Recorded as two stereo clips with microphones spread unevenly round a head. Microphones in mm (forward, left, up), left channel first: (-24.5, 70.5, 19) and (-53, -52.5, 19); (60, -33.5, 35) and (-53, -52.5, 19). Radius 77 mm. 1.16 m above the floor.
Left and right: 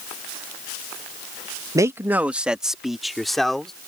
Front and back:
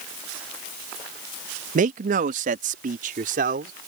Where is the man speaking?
170° right; by 3.7 s 165° left.